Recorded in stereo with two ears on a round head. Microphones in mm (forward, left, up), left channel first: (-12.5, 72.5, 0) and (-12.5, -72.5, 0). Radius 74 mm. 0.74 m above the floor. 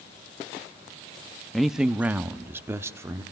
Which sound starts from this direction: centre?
A man speaking, at 1.5 s.